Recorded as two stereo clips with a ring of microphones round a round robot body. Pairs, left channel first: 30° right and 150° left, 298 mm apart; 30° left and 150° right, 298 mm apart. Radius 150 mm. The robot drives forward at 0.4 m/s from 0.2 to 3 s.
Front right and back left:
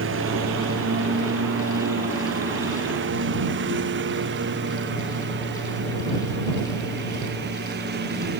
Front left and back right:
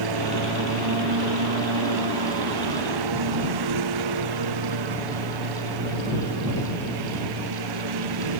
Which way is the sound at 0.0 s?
160° right.